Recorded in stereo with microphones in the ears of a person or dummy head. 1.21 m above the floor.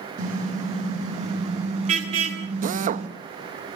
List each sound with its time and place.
0.2 s a car horn: 35° right (ahead or behind), 6 m; by 3.1 s 30° right (ahead or behind), 7.5 m
2.6 s a drill: 50° right (ahead or behind), 1.2 m